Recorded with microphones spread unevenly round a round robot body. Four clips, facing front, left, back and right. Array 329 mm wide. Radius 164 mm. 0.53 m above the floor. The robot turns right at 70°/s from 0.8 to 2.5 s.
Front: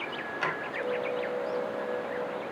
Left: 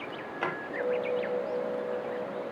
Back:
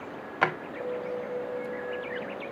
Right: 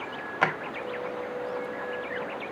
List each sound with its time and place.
0.4 s a drawer: 115° right, 1.1 m